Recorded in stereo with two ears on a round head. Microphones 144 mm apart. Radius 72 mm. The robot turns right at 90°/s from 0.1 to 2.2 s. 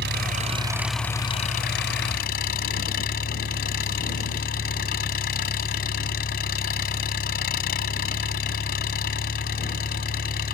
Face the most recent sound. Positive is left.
turn(degrees=115)